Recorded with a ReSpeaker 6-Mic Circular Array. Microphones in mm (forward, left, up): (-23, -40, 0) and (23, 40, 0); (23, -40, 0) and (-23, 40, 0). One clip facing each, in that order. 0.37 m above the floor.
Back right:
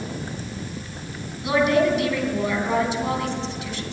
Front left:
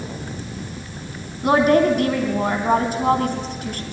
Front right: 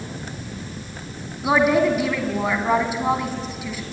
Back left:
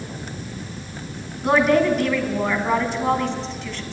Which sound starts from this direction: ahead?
A woman speaking, at 1.4 s.